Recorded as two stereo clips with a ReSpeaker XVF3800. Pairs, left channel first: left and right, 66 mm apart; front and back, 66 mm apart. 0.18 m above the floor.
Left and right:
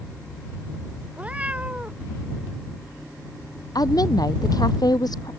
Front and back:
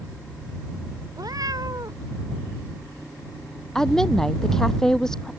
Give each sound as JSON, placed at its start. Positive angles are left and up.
{"t": 1.2, "sound": "a cat meowing", "azimuth_deg": -160}
{"t": 3.8, "sound": "a woman speaking", "azimuth_deg": 80}